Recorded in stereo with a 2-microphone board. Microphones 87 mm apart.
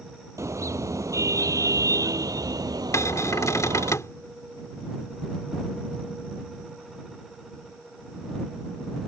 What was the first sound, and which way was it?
A car horn, 35° right (ahead or behind).